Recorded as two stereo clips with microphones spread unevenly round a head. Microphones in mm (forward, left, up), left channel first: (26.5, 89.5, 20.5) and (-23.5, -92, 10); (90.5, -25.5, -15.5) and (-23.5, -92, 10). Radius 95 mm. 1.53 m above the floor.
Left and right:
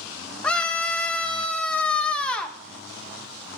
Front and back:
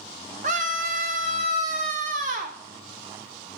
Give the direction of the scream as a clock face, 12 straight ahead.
7 o'clock.